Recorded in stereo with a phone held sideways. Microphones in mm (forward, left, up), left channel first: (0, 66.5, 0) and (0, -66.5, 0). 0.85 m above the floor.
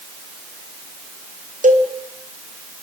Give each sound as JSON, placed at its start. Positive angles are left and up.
{"t": 1.6, "sound": "a cowbell", "side_deg": -70, "distance_m": 3.5}